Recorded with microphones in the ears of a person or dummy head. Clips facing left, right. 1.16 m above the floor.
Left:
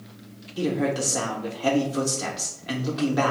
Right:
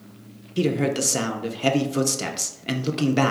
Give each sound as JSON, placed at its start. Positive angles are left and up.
{"t": 0.6, "sound": "a man speaking", "side_deg": -35, "distance_m": 0.5}